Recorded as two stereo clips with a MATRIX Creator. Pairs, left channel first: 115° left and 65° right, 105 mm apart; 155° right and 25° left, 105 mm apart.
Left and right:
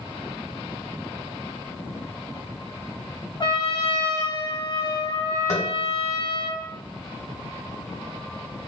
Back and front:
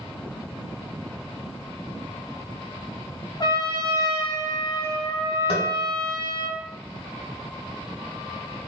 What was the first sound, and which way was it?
A trumpet, 155° left.